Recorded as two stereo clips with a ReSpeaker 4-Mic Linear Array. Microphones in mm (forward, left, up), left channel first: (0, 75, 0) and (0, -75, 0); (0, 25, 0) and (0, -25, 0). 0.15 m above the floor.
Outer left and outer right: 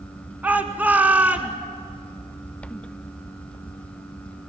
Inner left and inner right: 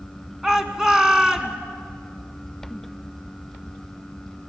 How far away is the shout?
About 1.6 m.